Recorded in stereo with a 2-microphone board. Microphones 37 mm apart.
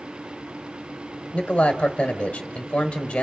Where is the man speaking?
35° left (ahead or behind), 1.5 m.